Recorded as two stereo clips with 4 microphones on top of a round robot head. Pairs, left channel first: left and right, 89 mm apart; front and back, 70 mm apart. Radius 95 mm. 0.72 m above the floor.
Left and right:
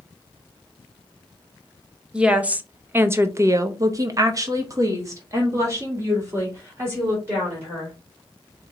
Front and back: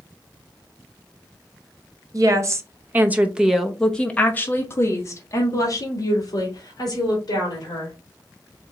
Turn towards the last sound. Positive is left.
turn(degrees=-30)